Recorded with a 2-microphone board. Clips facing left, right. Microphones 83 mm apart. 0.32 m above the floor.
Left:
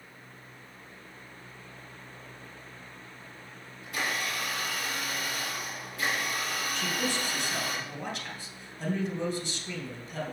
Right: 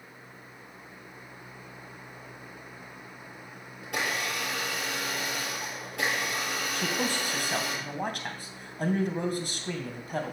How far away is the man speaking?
About 2.5 m.